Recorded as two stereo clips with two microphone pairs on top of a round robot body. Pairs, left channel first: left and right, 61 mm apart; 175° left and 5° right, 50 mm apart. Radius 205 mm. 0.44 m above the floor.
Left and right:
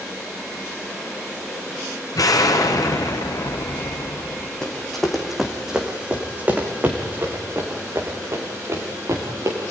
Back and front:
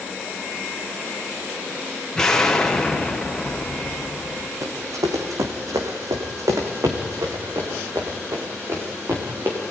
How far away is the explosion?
About 2.5 m.